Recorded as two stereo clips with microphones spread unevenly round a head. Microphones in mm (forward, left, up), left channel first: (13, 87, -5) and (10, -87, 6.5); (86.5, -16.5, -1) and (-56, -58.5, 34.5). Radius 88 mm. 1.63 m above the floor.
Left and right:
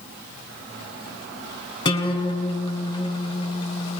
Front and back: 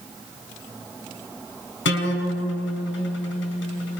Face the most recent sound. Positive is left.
turn(degrees=20)